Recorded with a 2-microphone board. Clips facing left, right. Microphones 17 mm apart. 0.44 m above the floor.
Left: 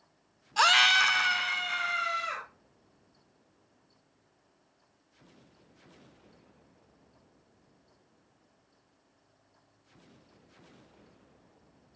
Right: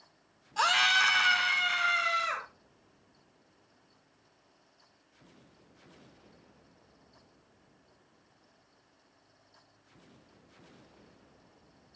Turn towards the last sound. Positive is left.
turn(degrees=-25)  # may be behind; listen again after turning